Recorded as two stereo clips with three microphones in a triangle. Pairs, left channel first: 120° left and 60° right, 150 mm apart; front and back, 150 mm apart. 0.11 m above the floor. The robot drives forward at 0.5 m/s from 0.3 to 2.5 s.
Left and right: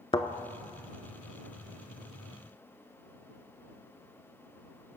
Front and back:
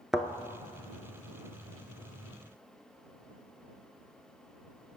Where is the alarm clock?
No alarm clock in this recording.